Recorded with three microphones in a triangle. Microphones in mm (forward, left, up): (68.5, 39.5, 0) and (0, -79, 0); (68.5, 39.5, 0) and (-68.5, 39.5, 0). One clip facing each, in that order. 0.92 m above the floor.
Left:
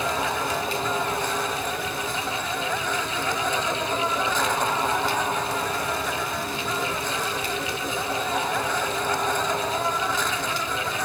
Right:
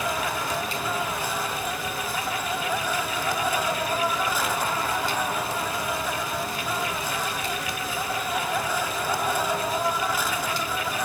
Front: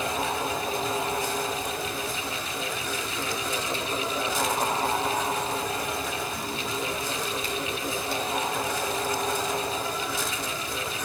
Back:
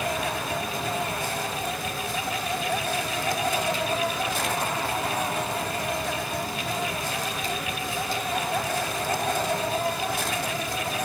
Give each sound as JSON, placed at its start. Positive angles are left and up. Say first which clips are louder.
{"t": 0.0, "sound": "an insect", "louder": "left 2 dB, even", "azimuth_deg": 160, "distance_m": 1.4}